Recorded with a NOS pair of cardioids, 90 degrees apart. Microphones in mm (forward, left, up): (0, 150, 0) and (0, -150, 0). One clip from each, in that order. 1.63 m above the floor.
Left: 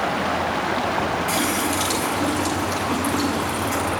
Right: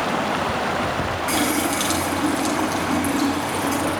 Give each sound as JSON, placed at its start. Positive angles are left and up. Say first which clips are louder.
{"t": 1.3, "sound": "a running tap", "louder": "right 1 dB", "azimuth_deg": -30, "distance_m": 9.5}